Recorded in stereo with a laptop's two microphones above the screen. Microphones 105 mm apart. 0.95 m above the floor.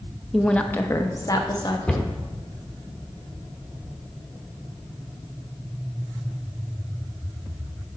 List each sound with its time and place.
0.3 s a woman speaking: centre (ahead or behind), 0.7 m; by 1.8 s 45° left (ahead or behind), 1.2 m
1.9 s a cupboard door: 10° left (ahead or behind), 1.0 m